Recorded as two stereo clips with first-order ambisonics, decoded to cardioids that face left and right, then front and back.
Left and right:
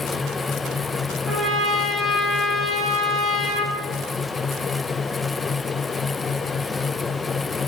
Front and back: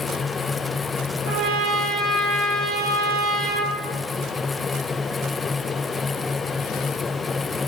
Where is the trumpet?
165° right, 0.6 m.